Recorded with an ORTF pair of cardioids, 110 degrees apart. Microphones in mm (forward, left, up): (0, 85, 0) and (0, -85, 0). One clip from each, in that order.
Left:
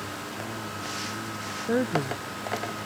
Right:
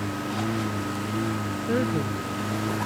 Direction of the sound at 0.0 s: 60° right.